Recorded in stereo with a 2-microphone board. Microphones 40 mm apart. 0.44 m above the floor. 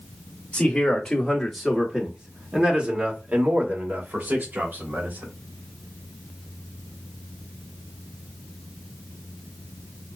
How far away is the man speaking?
About 1.4 m.